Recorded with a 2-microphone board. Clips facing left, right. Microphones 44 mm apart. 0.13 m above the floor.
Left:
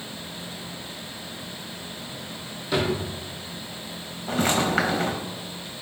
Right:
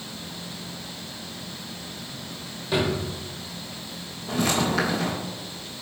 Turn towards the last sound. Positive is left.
turn(degrees=35)  # may be behind; listen again after turning